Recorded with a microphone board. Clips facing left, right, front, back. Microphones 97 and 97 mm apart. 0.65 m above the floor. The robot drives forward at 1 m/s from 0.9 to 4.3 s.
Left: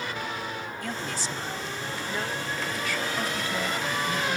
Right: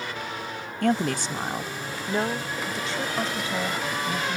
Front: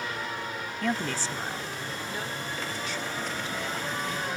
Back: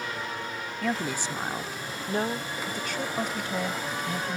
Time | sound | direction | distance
0.8 | a woman speaking | 95° right | ?